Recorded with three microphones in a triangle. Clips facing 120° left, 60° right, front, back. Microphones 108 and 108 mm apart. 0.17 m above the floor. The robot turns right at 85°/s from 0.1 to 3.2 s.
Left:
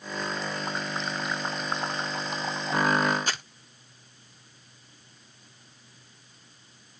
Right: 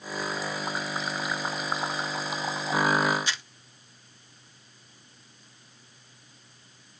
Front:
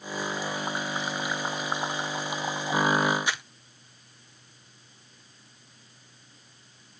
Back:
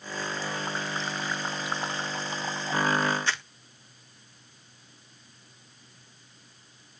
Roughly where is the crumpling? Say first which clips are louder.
Left 2 dB, even; left.